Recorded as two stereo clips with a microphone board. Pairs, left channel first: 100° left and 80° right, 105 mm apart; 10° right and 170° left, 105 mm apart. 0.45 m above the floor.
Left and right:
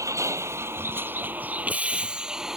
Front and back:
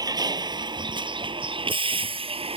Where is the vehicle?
140° right; by 2.6 s 165° right.